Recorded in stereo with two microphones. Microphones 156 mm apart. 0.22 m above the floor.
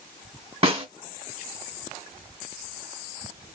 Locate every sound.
0.6 s a snare drum: 35° right (ahead or behind), 1.5 m